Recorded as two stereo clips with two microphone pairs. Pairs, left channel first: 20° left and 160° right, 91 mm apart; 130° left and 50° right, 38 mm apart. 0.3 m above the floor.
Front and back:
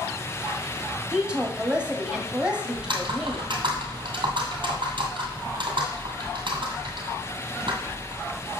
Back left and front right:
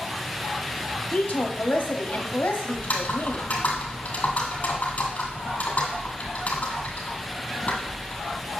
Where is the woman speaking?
125° left, 1.4 m.